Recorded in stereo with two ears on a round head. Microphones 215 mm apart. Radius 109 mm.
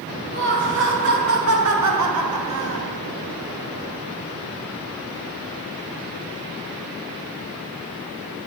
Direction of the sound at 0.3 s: 50° right (ahead or behind).